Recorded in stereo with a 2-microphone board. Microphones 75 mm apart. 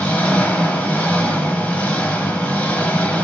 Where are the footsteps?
No footsteps in this recording.